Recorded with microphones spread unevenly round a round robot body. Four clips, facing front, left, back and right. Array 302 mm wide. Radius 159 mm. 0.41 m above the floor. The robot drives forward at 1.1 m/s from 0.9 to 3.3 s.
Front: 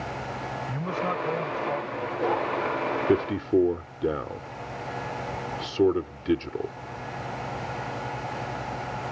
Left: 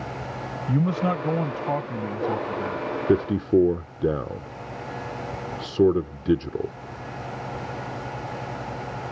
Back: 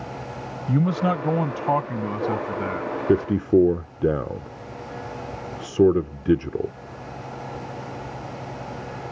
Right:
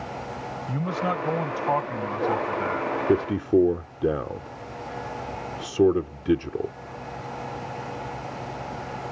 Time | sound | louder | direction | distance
0.7 | a man speaking | left 4 dB, back 9 dB | 145° left | ?
3.1 | a man speaking | left 1 dB, back 5 dB | 145° left | ?